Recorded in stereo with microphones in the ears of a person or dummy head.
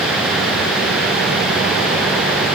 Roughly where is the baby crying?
I don't hear a baby crying.